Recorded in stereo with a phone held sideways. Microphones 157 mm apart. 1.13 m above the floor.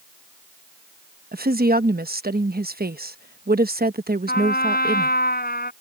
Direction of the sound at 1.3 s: 75° right (ahead or behind).